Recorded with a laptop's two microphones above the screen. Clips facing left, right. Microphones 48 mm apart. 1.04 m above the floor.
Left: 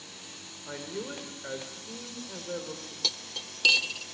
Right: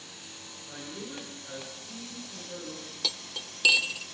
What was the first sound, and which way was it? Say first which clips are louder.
A man speaking: left 4 dB; 75° left (ahead or behind).